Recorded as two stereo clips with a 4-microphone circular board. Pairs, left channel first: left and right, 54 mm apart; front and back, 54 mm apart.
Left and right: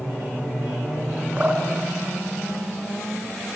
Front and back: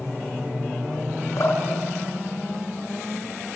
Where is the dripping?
25° right, 5 m.